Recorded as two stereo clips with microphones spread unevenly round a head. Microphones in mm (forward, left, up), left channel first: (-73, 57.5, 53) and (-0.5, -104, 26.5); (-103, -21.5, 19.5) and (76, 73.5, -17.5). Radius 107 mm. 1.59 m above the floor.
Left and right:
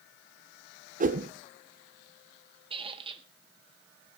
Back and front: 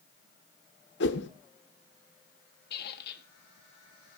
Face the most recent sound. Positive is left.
turn(degrees=-130)